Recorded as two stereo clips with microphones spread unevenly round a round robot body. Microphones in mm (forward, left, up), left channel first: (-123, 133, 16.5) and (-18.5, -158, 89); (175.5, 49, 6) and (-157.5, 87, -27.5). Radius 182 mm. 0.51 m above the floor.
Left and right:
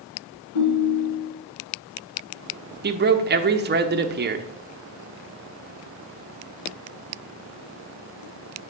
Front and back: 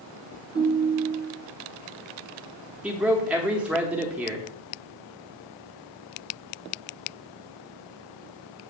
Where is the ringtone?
115° left, 2 m.